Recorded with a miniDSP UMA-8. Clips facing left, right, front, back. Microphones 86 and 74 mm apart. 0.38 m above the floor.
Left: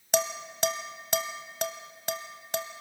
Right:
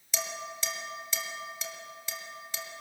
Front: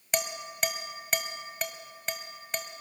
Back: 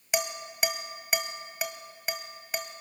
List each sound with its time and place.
0.1 s dishes clattering: 100° left, 1.5 m